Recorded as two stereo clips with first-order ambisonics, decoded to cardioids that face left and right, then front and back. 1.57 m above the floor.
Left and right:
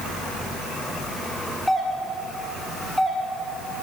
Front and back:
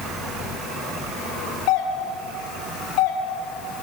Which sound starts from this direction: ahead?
A doorbell, at 1.7 s.